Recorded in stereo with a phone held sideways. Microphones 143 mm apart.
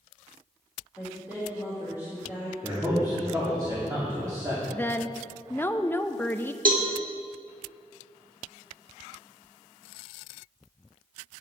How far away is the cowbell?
About 1.3 m.